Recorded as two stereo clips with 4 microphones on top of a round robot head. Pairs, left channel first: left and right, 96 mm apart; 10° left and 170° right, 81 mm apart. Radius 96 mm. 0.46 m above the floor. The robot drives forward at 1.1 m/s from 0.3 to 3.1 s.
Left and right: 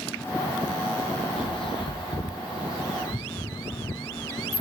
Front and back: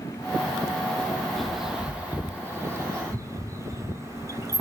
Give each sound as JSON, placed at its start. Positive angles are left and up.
{"t": 1.4, "sound": "a bird", "azimuth_deg": 95, "distance_m": 2.0}